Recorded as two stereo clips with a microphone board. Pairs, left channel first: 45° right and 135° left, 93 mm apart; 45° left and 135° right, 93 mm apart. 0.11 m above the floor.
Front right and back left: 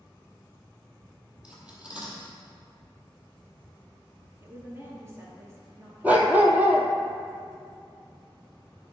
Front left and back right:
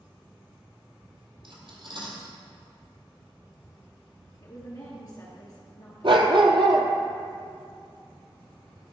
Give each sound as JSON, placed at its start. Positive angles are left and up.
{"t": 1.4, "sound": "cutlery clinking", "azimuth_deg": -150, "distance_m": 1.9}
{"t": 4.4, "sound": "a woman speaking", "azimuth_deg": 85, "distance_m": 2.5}
{"t": 6.0, "sound": "a dog barking", "azimuth_deg": -155, "distance_m": 1.0}